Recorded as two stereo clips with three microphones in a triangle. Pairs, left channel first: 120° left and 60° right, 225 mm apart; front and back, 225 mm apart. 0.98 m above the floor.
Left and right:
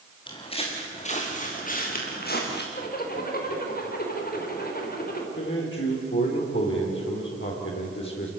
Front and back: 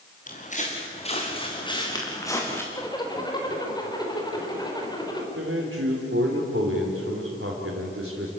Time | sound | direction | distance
0.3 | footsteps | 55° left | 4 m
2.7 | a zipper | 70° left | 3.5 m
5.4 | a man speaking | 150° left | 3.5 m